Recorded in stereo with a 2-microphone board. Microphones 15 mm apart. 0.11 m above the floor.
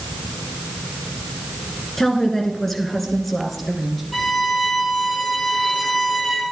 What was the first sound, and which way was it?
A woman speaking, 25° left (ahead or behind).